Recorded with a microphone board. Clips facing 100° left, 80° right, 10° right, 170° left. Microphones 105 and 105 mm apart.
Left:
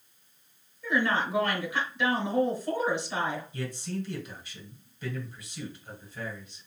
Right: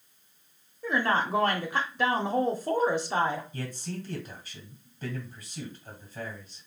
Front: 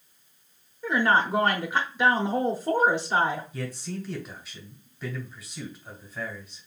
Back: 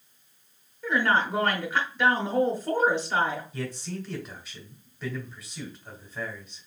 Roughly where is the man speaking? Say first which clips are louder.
Left 2 dB, even; right.